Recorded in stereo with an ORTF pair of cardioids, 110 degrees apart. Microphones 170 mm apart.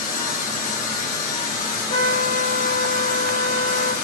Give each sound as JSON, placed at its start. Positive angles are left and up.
{"t": 0.0, "sound": "a machine running", "azimuth_deg": 50, "distance_m": 4.0}
{"t": 1.9, "sound": "a trumpet", "azimuth_deg": 45, "distance_m": 3.5}